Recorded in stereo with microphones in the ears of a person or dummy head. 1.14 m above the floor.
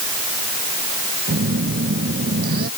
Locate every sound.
1.3 s a phone buzzing: 50° right (ahead or behind)